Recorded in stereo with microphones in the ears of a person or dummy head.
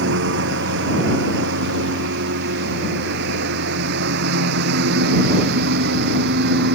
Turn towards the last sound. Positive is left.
turn(degrees=-60)  # may be behind; listen again after turning